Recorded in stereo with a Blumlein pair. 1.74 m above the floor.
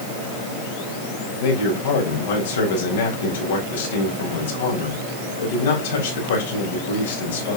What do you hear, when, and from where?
1.4 s a man speaking: 60° left, 4.5 m